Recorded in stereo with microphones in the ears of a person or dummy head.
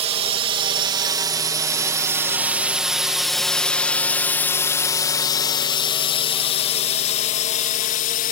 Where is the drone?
35° right (ahead or behind); by 8.3 s 45° left (ahead or behind).